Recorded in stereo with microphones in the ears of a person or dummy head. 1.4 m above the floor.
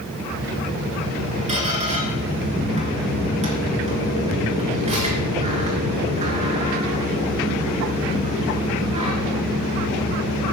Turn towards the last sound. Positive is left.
turn(degrees=-30)  # may be behind; listen again after turning